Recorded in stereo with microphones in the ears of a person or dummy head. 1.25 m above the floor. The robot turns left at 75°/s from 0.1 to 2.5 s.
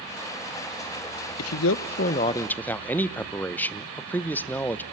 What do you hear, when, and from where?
1.4 s a man speaking: 95° left, 0.8 m; by 4.8 s 10° left, 0.8 m